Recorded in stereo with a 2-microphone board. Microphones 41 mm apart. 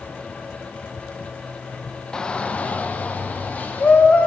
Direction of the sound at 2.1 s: 15° left (ahead or behind).